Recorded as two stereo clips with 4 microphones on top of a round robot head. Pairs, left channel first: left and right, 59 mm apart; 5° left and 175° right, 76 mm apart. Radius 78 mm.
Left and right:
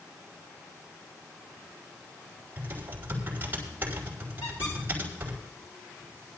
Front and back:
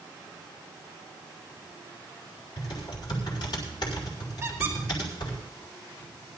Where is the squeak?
125° left, 3.5 m.